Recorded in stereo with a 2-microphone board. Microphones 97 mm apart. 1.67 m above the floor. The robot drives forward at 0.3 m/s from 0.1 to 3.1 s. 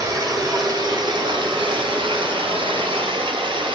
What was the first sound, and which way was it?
Running water, 35° right (ahead or behind).